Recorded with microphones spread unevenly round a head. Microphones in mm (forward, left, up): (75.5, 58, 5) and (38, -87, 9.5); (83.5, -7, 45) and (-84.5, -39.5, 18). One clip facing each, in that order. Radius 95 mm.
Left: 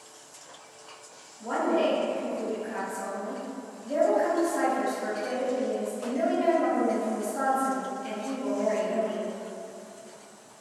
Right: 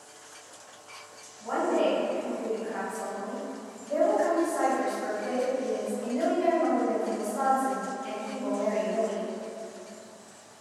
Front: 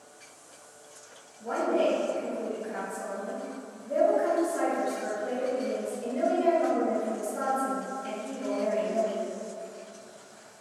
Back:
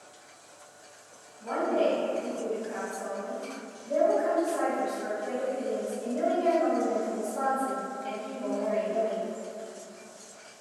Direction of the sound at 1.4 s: 80° left.